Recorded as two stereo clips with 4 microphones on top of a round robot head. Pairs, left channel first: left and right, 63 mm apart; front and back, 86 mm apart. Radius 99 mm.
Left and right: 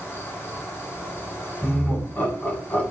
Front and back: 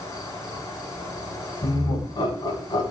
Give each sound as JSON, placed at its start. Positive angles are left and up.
{"t": 0.0, "sound": "an insect", "azimuth_deg": 45, "distance_m": 6.0}
{"t": 1.6, "sound": "laughter", "azimuth_deg": 30, "distance_m": 6.0}